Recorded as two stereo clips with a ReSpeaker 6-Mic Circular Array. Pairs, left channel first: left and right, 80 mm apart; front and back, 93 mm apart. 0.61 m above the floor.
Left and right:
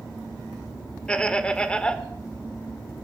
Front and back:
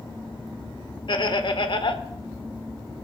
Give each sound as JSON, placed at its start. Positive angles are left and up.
{"t": 1.1, "sound": "laughter", "azimuth_deg": 15, "distance_m": 1.5}